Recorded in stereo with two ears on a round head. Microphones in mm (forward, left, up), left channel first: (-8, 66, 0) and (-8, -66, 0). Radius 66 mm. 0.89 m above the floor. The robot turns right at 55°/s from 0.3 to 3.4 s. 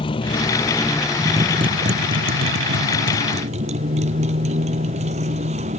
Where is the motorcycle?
145° left; by 5.8 s 45° right.